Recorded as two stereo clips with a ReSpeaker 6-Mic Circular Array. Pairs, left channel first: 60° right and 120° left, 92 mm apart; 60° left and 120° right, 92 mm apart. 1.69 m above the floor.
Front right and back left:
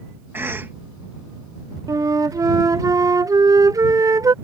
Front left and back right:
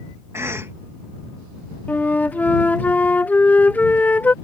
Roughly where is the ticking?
No ticking in this recording.